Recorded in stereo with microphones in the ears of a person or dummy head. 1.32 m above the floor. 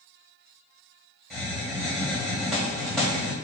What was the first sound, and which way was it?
A hiss, centre (ahead or behind).